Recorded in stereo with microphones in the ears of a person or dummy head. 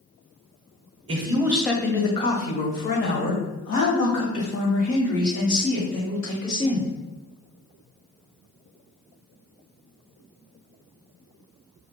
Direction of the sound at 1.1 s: 30° right (ahead or behind).